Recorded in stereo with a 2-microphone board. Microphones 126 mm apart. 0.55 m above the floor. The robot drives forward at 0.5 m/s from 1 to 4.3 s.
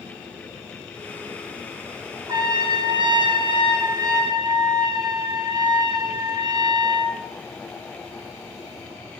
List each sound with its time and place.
2.3 s a trumpet: 35° right (ahead or behind), 0.9 m; by 7.2 s 30° right (ahead or behind), 1.0 m